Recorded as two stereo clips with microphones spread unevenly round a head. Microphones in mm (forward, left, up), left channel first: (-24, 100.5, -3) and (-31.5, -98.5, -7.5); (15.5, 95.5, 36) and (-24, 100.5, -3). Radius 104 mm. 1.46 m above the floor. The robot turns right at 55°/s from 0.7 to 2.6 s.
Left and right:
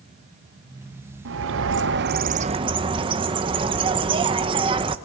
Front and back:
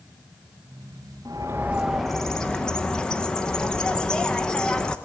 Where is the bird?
100° right, 0.8 m; by 5.0 s 30° right, 0.8 m.